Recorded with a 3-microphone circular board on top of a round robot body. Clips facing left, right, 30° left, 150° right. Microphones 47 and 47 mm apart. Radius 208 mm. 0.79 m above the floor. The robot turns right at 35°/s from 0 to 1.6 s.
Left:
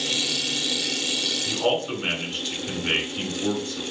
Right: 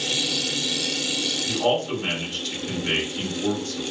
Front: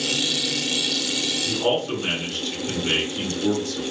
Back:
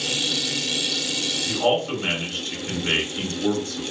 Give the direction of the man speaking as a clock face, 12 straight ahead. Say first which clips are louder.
Right 2 dB, back 2 dB; 7 o'clock.